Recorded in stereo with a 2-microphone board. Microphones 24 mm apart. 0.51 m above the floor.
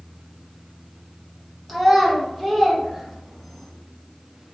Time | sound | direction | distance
1.7 | a child speaking | centre (ahead or behind) | 0.9 m